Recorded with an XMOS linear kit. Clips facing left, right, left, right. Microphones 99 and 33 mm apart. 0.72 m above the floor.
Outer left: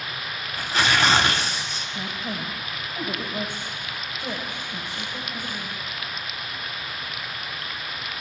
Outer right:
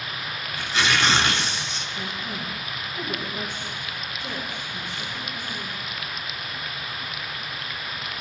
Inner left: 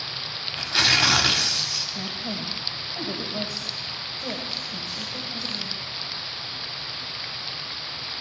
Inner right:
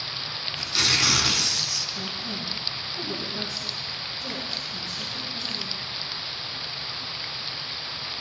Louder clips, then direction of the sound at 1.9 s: Outer left 2 dB, inner left 1 dB; 80° left.